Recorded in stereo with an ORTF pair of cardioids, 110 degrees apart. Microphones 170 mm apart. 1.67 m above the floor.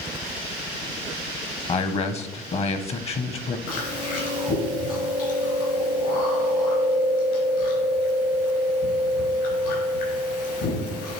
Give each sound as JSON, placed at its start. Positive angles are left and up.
{"t": 1.7, "sound": "a man speaking", "azimuth_deg": 40, "distance_m": 1.1}
{"t": 3.7, "sound": "chewing", "azimuth_deg": 65, "distance_m": 4.0}